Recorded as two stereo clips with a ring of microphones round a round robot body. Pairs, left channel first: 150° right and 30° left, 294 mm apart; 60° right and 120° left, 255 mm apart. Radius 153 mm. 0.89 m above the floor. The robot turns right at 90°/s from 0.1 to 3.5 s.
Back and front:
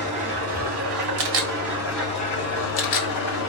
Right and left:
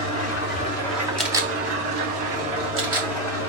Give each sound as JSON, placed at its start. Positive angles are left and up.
{"t": 0.0, "sound": "an engine running", "azimuth_deg": -45, "distance_m": 2.5}
{"t": 1.2, "sound": "a camera shutter", "azimuth_deg": 25, "distance_m": 1.0}